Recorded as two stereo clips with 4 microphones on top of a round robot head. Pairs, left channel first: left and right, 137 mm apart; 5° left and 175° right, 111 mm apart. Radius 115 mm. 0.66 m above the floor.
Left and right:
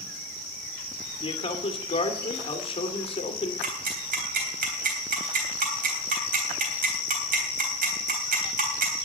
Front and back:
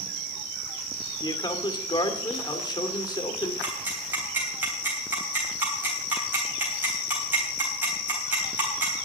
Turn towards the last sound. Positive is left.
turn(degrees=-100)